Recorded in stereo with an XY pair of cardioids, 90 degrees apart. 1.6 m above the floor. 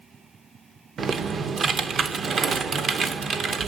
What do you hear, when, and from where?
1.0 s typing on a keyboard: 60° right, 0.8 m